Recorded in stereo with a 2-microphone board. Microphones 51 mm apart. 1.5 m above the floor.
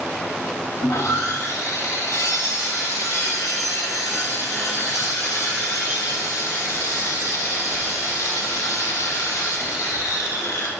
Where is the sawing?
80° left, 1.1 m.